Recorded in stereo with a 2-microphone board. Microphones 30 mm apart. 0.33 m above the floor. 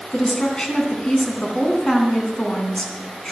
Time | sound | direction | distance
0.1 | a woman speaking | 30° left (ahead or behind) | 3 m